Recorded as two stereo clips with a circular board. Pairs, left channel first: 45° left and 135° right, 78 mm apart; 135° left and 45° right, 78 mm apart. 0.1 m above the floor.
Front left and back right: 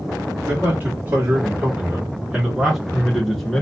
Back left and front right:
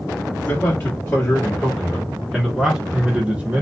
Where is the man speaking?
175° right, 1.8 m; by 3.6 s 35° right, 1.4 m.